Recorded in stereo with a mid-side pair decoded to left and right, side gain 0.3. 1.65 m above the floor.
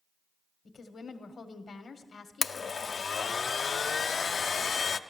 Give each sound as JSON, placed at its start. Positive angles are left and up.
{"t": 0.7, "sound": "a woman speaking", "azimuth_deg": 65, "distance_m": 1.4}
{"t": 2.4, "sound": "a blender", "azimuth_deg": 60, "distance_m": 0.5}